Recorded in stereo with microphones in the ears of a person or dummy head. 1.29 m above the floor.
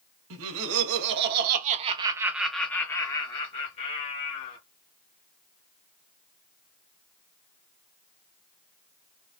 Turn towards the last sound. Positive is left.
turn(degrees=45)  # may be behind; listen again after turning